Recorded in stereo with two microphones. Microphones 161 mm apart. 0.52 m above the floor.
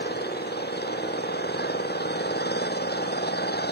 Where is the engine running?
75° left (ahead or behind).